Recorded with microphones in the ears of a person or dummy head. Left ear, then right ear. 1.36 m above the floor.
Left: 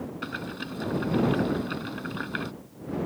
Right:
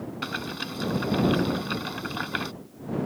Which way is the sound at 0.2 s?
25° right (ahead or behind).